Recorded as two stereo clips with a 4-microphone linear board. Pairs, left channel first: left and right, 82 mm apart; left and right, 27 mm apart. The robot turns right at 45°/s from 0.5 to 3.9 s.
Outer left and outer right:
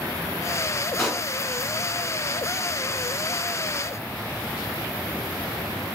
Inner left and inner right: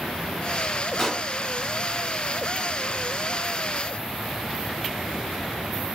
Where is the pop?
5° left (ahead or behind), 1.5 m; by 1.3 s 5° right (ahead or behind), 1.5 m.